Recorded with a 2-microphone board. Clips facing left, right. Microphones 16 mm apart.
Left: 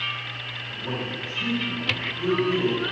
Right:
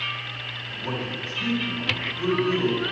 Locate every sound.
0.7 s a man speaking: 30° right (ahead or behind), 1.7 m